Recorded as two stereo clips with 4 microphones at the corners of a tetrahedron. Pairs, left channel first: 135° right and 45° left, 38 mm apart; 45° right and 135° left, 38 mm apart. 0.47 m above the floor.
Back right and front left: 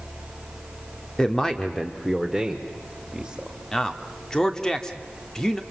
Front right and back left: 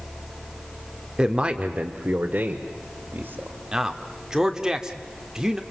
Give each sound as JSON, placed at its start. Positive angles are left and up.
{"t": 1.2, "sound": "a man speaking", "azimuth_deg": 175, "distance_m": 1.1}
{"t": 3.7, "sound": "a man speaking", "azimuth_deg": 175, "distance_m": 1.3}